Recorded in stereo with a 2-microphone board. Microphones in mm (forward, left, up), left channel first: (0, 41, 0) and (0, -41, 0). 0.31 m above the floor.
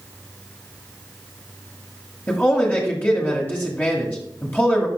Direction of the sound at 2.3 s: 25° left (ahead or behind).